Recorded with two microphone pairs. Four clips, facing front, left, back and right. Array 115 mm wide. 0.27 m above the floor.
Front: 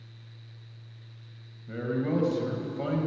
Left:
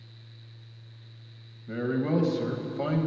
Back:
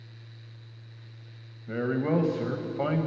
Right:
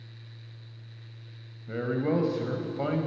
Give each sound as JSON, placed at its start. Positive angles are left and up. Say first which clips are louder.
{"t": 1.7, "sound": "a man speaking", "louder": "even, back 2 dB", "azimuth_deg": -170, "distance_m": 1.0}